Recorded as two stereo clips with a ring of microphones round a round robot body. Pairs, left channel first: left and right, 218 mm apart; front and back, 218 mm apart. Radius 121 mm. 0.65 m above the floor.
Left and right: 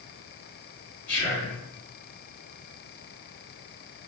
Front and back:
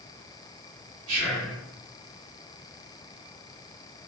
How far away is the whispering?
About 1.1 m.